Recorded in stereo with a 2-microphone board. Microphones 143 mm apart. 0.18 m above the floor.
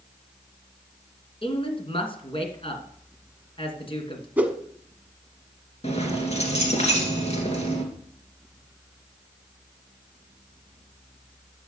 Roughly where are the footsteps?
No footsteps in this recording.